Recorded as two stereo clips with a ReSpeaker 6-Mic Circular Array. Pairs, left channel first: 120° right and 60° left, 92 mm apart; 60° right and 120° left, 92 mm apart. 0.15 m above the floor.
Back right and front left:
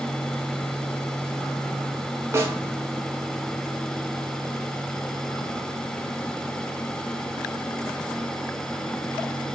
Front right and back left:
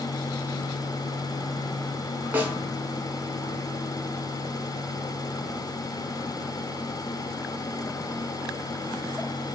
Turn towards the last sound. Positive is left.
turn(degrees=80)